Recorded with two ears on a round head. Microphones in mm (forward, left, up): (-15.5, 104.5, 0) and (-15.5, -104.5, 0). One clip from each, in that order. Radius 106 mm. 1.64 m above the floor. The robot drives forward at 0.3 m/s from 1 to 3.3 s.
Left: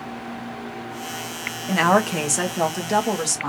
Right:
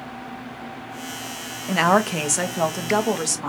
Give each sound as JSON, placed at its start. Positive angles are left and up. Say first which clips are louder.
{"t": 1.7, "sound": "a woman speaking", "louder": "even", "side_deg": -5, "distance_m": 0.7}